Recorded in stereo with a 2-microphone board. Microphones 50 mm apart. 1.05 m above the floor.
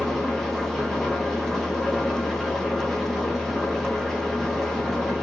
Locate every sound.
0.0 s an engine running: 5° left (ahead or behind), 1.8 m